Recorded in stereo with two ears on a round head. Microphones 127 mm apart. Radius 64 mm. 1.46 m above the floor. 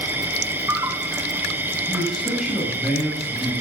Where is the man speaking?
5° right (ahead or behind), 8.5 m.